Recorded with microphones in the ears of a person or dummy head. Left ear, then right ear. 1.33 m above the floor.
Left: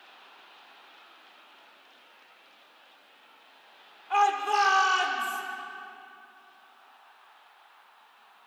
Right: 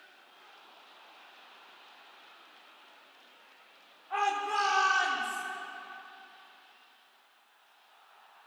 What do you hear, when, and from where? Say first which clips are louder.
4.1 s a shout: left 6 dB; 80° left, 4.5 m; by 5.4 s 70° left (ahead or behind), 6 m